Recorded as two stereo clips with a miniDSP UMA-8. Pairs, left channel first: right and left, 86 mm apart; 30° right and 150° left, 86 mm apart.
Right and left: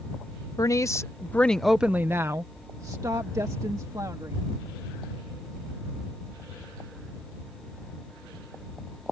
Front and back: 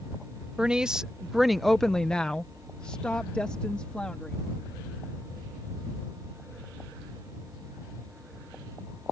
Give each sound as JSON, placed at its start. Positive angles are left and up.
{"t": 0.6, "sound": "a woman speaking", "azimuth_deg": -130}